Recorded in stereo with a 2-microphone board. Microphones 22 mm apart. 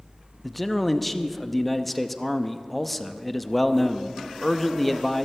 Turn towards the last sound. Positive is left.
turn(degrees=5)  # may be behind; listen again after turning